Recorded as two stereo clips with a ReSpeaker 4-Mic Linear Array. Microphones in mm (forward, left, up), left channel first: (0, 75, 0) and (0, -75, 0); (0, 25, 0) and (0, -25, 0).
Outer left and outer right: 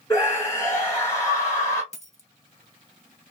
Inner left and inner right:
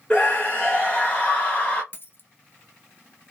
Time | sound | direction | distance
0.1 | a scream | 20° left (ahead or behind) | 1.3 m
1.9 | a dropped coin | 50° left (ahead or behind) | 0.7 m